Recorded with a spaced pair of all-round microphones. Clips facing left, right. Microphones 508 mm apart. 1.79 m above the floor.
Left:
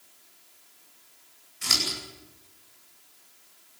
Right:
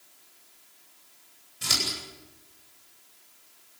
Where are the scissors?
60° right (ahead or behind), 9.5 m.